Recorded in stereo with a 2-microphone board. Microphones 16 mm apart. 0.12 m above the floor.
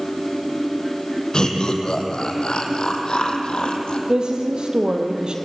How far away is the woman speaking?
About 4 m.